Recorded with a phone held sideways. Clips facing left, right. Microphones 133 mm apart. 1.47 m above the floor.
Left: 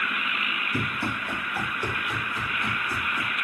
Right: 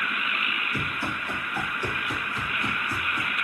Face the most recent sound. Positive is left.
turn(degrees=-5)  # may be behind; listen again after turning